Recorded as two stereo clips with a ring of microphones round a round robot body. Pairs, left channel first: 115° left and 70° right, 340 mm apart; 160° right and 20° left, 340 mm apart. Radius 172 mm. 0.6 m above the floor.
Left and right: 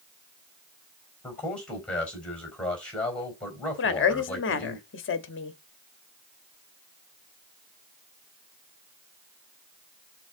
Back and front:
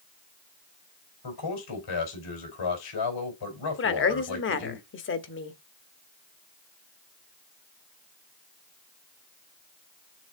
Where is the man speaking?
160° right, 4 m.